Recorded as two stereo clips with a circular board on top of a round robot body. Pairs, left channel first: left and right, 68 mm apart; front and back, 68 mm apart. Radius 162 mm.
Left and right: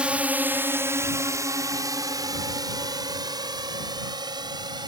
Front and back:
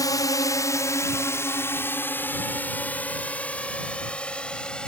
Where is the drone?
15° right; by 4.9 s 75° right.